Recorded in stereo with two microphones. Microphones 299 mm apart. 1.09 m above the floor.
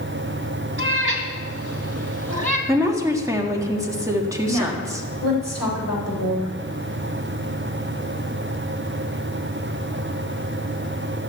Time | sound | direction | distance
0.8 | a cat meowing | 40° right (ahead or behind) | 3 m
2.7 | a woman speaking | 10° right (ahead or behind) | 1.8 m
4.5 | a woman speaking | 60° left (ahead or behind) | 5 m